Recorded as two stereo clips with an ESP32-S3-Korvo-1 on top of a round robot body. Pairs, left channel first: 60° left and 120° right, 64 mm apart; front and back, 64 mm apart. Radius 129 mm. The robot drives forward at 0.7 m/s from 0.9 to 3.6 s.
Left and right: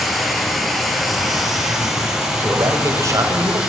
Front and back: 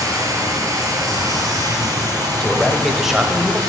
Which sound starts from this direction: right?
A man speaking, at 2.4 s.